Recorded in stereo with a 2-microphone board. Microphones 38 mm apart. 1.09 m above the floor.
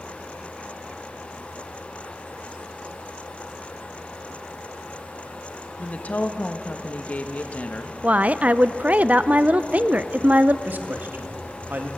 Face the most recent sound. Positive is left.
turn(degrees=-55)  # may be behind; listen again after turning